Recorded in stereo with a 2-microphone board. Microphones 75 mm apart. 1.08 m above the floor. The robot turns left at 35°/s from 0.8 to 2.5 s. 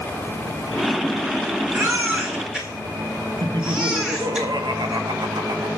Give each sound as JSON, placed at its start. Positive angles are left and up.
{"t": 1.7, "sound": "a baby crying", "side_deg": -40, "distance_m": 2.5}
{"t": 3.4, "sound": "laughter", "side_deg": -75, "distance_m": 1.4}